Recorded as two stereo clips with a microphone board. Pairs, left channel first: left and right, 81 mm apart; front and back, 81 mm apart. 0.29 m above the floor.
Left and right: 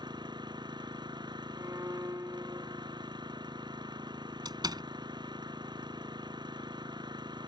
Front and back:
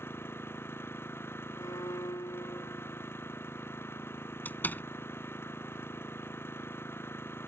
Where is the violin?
35° right.